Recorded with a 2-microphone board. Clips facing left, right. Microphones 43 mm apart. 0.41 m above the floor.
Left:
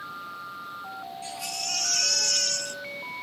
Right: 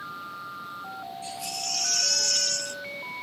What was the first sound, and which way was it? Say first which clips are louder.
A baby crying: left 1 dB; 60° left (ahead or behind).